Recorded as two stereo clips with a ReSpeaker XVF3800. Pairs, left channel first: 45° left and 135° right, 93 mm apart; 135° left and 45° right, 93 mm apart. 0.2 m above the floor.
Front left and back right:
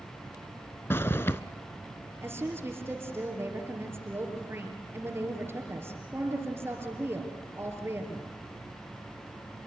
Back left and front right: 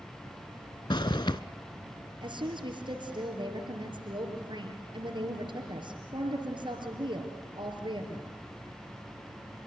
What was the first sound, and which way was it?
A zipper, 105° left.